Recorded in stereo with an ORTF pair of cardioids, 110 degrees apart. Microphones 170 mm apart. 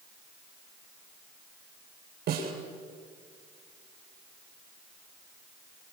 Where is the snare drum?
65° right, 8 m.